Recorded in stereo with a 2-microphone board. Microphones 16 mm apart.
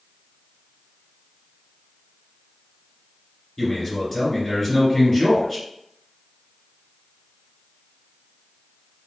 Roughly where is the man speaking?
Centre.